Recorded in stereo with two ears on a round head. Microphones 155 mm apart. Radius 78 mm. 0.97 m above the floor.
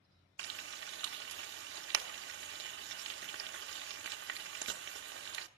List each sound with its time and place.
0.4 s frying: 70° right (ahead or behind), 0.8 m